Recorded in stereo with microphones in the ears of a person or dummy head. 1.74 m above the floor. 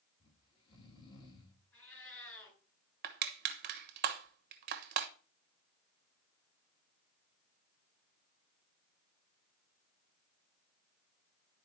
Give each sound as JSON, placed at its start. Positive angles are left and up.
{"t": 0.2, "sound": "snoring", "side_deg": 25, "distance_m": 3.0}
{"t": 1.7, "sound": "a cat meowing", "side_deg": 15, "distance_m": 6.5}
{"t": 3.0, "sound": "crushing", "side_deg": -45, "distance_m": 1.1}